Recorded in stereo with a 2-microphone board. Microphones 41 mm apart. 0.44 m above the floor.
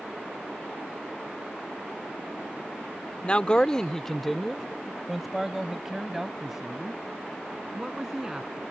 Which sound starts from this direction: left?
A man speaking, at 3.2 s.